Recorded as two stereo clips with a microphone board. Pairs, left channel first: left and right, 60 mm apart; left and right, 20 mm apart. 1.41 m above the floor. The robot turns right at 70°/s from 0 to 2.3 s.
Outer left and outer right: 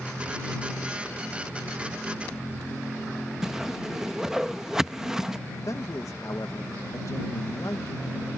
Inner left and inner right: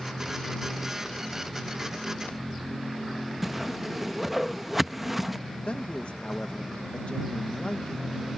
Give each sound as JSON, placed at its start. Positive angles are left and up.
{"t": 3.4, "sound": "a whoosh", "side_deg": -10}
{"t": 5.7, "sound": "a man speaking", "side_deg": 60}